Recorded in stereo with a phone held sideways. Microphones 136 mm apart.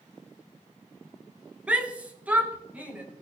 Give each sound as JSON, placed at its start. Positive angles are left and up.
{"t": 1.7, "sound": "a shout", "side_deg": -10, "distance_m": 1.4}